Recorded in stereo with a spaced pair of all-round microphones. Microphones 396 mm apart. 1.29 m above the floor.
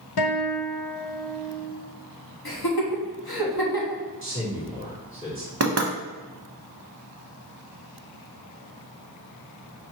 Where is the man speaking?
30° left (ahead or behind), 2 m.